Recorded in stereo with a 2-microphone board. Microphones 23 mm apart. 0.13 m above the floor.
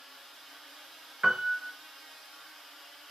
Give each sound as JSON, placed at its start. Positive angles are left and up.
{"t": 1.2, "sound": "a piano", "side_deg": -50, "distance_m": 0.9}